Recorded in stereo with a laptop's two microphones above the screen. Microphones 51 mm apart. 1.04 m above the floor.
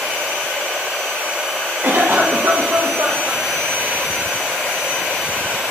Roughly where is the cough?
Right.